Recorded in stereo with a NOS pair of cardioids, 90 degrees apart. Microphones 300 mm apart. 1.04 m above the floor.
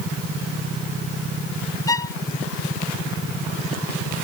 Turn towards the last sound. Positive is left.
turn(degrees=10)